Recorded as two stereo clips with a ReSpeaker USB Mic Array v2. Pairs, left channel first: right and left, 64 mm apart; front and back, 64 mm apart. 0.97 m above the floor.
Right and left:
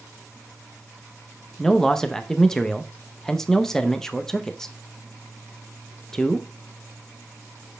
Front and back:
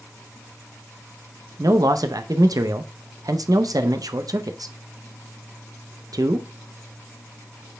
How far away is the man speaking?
About 0.6 m.